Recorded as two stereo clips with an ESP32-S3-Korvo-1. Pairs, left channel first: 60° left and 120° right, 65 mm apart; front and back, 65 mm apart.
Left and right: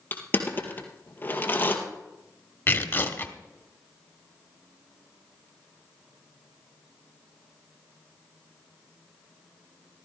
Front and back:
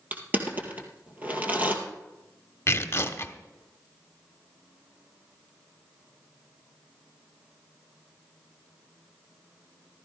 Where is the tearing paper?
25° left, 1.2 m.